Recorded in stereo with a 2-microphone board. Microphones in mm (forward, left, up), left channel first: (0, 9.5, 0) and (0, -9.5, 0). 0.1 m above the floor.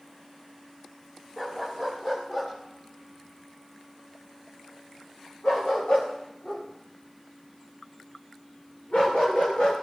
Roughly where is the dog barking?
Centre.